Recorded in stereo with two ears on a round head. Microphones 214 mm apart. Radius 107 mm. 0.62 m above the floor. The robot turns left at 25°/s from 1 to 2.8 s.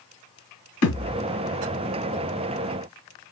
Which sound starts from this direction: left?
A thud, at 0.8 s.